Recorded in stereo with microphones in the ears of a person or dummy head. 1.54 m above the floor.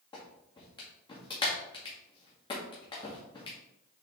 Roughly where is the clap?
Left.